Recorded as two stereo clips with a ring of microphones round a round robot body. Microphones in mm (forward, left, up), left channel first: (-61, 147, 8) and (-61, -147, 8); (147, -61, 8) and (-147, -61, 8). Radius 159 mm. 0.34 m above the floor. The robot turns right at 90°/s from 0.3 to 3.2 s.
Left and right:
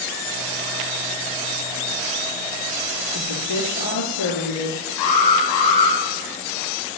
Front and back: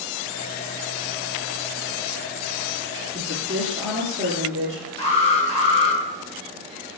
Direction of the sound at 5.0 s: 70° left.